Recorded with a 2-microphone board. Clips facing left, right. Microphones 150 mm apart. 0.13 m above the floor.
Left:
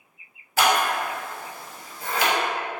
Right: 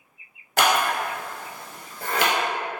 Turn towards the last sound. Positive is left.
turn(degrees=-65)  # may be behind; listen again after turning